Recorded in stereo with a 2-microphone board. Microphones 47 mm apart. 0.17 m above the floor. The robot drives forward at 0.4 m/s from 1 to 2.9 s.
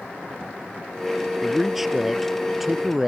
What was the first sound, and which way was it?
A man speaking, 5° right (ahead or behind).